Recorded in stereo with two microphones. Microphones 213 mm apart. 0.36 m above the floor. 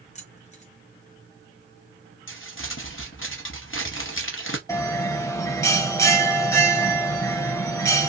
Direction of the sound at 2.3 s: 70° left (ahead or behind).